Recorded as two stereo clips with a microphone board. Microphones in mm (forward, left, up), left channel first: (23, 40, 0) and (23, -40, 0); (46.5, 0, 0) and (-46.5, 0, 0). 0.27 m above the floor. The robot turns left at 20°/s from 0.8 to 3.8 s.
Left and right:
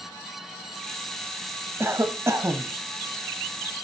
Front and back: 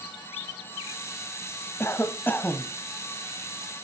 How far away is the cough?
About 1.5 m.